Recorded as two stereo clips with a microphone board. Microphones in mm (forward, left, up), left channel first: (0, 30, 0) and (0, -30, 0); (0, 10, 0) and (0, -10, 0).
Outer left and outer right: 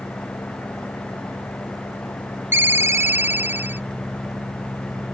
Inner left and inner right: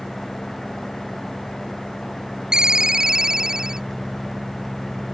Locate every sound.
0.0 s an engine running: 45° left (ahead or behind)
2.5 s a ringtone: 40° right (ahead or behind)